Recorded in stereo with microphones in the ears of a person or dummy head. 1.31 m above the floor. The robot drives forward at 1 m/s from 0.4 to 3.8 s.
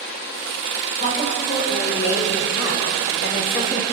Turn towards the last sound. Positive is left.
turn(degrees=65)  # may be behind; listen again after turning